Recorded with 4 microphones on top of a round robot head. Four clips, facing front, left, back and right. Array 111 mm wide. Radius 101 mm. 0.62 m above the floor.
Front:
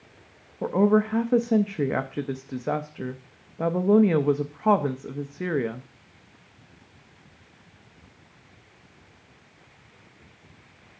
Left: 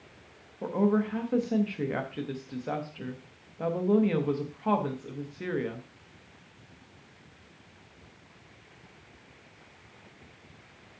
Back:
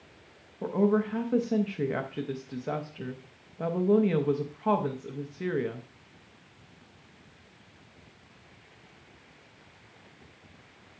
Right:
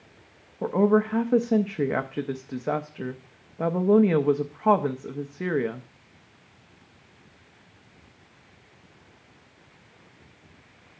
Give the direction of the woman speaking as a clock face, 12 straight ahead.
2 o'clock.